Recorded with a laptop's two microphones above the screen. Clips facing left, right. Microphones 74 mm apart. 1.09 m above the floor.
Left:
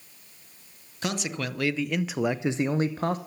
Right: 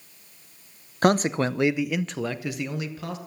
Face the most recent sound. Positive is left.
turn(degrees=45)  # may be behind; listen again after turning